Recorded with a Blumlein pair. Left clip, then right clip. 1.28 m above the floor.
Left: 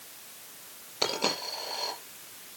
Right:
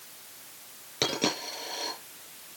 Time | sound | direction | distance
1.0 | a dropped coin | 65° right | 8 m